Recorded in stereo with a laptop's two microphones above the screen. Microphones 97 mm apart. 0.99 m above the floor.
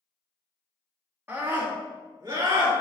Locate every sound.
1.3 s a scream: 25° right (ahead or behind), 2 m; by 2.7 s 55° right (ahead or behind), 3.5 m